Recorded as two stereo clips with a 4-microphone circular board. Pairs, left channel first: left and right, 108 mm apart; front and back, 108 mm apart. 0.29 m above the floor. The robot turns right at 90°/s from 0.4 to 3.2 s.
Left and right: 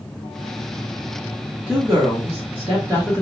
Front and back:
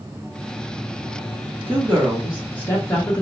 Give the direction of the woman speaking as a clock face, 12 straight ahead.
5 o'clock.